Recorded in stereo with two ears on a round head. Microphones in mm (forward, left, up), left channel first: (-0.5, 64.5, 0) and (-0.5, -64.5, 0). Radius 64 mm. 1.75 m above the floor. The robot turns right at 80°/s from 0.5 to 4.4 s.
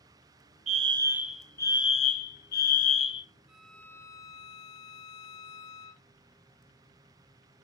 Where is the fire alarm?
55° right, 1.0 m; by 3.3 s 155° left, 1.0 m.